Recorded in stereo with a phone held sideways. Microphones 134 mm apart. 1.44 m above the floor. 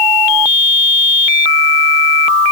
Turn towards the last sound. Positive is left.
No sound to turn to.